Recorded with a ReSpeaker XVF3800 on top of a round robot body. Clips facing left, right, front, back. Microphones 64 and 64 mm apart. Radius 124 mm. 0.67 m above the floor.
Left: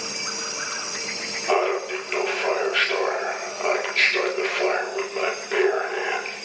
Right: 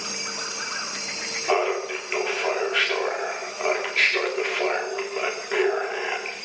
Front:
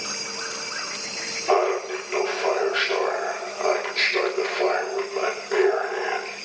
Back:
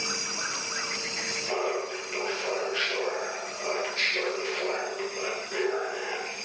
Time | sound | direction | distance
1.5 | laughter | straight ahead | 2.5 m